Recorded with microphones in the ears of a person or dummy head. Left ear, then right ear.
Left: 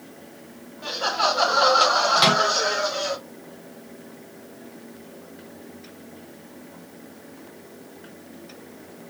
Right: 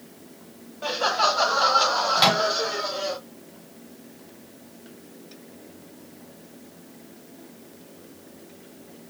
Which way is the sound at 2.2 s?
Centre (ahead or behind).